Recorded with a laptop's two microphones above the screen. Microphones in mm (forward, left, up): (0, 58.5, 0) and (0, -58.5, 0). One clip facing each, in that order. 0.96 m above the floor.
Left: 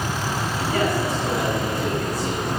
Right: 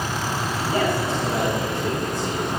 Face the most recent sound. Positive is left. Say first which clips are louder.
# even
turn(degrees=-25)  # may be behind; listen again after turning